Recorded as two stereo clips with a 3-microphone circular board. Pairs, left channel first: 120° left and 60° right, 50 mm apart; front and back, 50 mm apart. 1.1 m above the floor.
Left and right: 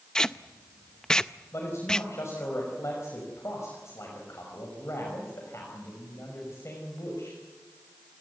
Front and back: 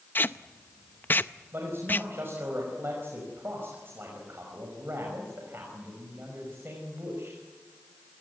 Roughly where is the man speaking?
Behind left.